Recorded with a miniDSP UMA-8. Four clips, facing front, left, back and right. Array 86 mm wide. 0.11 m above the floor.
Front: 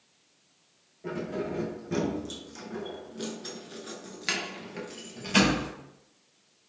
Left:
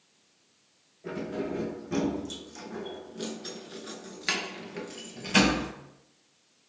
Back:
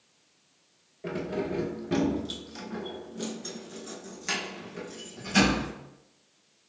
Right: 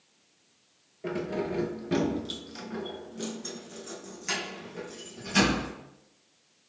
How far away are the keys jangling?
About 1.3 m.